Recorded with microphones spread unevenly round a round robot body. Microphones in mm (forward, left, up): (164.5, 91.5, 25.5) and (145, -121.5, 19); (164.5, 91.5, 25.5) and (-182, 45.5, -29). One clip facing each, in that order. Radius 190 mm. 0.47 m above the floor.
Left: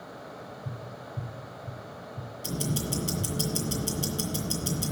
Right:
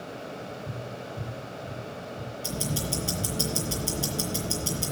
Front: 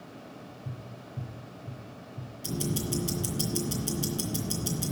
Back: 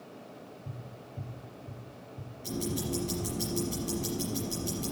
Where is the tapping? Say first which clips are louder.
Right 4 dB, front 2 dB; 60° left, 5 m.